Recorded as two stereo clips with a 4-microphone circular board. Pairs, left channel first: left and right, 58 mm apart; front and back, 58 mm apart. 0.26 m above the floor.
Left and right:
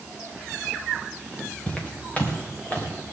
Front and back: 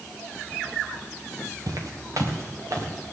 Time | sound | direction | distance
1.7 | footsteps | 160° left | 3 m